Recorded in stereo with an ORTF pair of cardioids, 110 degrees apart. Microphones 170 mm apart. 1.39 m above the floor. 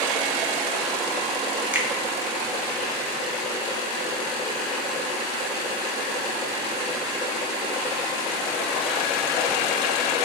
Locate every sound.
1.7 s a finger snap: 10° right, 0.5 m